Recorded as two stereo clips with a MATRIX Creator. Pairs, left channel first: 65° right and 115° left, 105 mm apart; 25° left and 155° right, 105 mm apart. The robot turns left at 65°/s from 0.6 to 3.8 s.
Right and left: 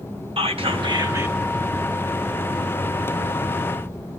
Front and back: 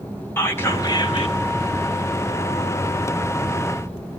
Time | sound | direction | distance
0.4 | whispering | 90° left | 2 m